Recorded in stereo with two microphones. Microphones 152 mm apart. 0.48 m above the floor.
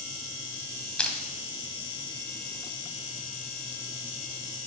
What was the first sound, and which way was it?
Crushing, 5° left (ahead or behind).